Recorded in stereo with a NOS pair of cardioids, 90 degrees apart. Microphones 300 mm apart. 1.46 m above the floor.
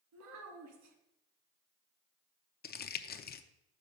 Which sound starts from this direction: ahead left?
Crumpling, at 2.6 s.